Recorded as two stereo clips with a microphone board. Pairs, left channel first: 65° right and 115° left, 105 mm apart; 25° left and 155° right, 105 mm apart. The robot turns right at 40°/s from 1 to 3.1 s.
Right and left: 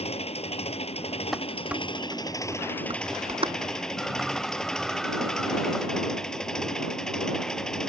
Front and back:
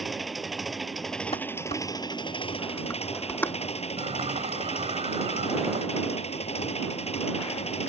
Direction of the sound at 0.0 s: 70° right.